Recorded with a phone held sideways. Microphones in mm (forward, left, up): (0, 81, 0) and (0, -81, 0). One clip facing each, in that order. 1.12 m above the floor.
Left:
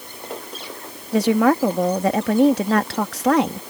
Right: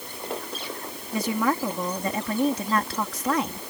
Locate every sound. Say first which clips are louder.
1.1 s a woman speaking: left 9 dB; 75° left (ahead or behind)